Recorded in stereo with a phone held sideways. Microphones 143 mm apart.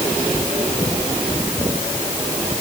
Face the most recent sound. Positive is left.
No sound to turn to.